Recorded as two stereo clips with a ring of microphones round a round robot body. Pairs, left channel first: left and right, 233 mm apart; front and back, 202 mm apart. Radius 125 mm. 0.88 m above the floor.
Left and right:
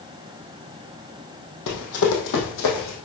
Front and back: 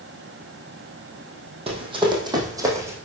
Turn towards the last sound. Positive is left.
turn(degrees=105)